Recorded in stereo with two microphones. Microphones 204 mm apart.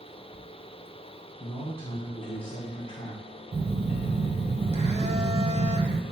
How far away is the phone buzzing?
About 0.8 m.